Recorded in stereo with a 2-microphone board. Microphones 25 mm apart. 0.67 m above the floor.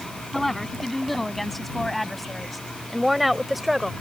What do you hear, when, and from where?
0.3 s a woman speaking: 10° left (ahead or behind); by 3.9 s 10° right (ahead or behind)